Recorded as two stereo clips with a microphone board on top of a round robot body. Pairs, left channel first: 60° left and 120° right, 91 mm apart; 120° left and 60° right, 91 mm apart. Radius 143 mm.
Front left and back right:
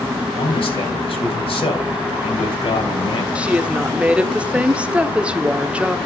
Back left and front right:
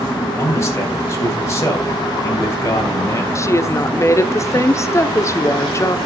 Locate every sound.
0.4 s a man speaking: 60° left, 4 m
3.4 s a woman speaking: 165° left, 1.3 m